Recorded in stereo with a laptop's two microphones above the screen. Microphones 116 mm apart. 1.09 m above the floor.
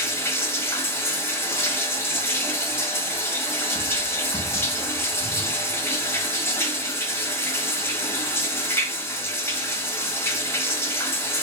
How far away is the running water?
About 1.5 m.